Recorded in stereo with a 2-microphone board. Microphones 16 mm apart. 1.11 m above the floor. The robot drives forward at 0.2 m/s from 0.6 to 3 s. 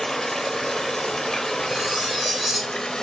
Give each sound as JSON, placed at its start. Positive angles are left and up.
{"t": 0.0, "sound": "running water", "side_deg": 25, "distance_m": 0.7}
{"t": 1.7, "sound": "cutlery clinking", "side_deg": -20, "distance_m": 1.5}